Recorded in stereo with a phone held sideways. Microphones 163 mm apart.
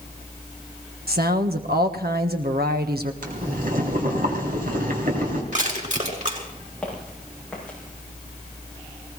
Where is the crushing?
55° right (ahead or behind), 4.5 m.